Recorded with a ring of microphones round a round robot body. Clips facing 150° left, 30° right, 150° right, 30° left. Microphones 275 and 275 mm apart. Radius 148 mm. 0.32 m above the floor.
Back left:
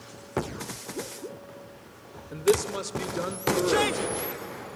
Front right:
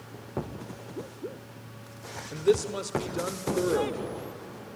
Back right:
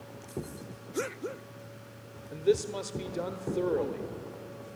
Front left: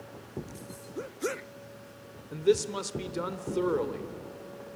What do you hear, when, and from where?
2.3 s a man speaking: 65° left, 1.2 m